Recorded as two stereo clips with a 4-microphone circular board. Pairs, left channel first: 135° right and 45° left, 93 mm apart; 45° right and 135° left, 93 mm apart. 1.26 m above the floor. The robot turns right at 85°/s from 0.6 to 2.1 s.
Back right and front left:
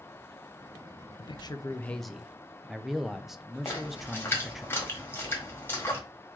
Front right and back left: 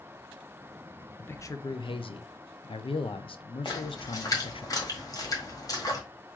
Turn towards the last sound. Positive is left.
turn(degrees=-80)